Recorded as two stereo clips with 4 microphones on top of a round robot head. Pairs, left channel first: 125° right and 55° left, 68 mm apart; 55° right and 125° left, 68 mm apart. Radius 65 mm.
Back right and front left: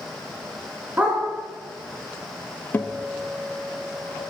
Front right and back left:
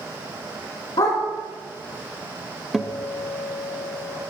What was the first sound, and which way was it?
A dog barking, 15° right.